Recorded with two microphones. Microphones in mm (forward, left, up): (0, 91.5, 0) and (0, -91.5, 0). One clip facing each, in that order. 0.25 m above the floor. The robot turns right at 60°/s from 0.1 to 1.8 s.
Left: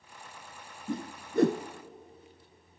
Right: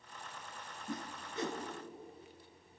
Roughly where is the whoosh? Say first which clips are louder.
Left 8 dB; left.